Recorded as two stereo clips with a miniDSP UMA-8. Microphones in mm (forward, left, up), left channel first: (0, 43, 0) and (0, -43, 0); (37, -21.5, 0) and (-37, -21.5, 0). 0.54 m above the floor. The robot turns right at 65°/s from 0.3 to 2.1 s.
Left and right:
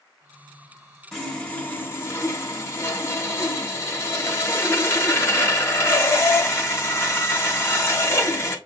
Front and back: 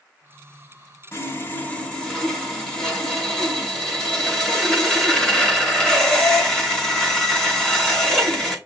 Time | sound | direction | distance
1.1 | sawing | 5° left | 1.1 m